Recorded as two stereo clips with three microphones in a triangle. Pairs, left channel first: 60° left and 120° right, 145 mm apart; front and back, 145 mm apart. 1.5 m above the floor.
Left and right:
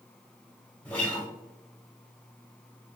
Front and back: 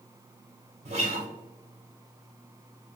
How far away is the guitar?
About 0.7 m.